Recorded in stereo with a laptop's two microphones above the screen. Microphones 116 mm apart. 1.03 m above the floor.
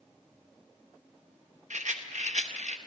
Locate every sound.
1.7 s a rattle: 85° right, 0.7 m